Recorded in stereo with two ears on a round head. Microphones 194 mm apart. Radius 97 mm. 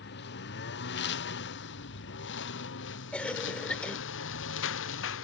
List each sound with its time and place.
0.0 s a lawn mower: 55° left (ahead or behind); by 5.2 s 65° left (ahead or behind)
3.1 s a cough: 5° left (ahead or behind)